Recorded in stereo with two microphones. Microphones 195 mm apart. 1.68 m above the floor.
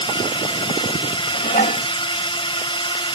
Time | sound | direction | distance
0.0 | a drone | 30° left (ahead or behind) | ?
1.3 | dishes clattering | 50° left (ahead or behind) | ?